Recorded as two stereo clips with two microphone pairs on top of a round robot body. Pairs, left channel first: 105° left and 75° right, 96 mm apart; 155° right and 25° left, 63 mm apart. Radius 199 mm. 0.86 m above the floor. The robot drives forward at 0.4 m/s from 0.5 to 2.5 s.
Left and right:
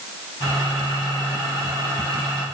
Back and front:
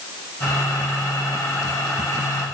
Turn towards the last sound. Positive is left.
No sound to turn to.